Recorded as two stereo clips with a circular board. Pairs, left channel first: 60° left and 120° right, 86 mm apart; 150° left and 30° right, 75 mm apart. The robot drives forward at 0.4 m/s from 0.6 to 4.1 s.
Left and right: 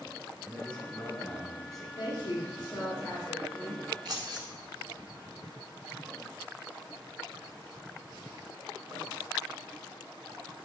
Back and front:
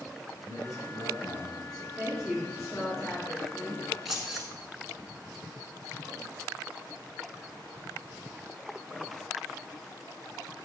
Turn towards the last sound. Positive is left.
turn(degrees=-120)